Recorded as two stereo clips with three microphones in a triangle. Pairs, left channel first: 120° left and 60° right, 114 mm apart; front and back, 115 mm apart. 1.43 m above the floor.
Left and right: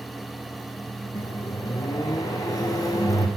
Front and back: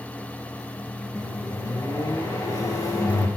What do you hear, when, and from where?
1.1 s a microwave: 60° left, 0.5 m